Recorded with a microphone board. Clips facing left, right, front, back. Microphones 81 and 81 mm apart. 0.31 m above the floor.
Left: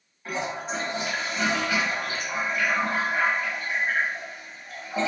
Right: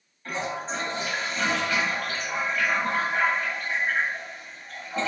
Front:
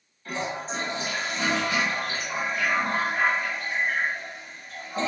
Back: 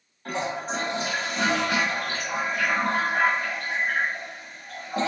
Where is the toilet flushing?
170° left, 0.9 m.